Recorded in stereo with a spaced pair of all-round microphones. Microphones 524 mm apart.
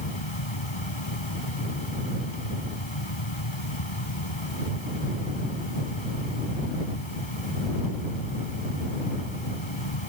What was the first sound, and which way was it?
A fan, 60° left (ahead or behind).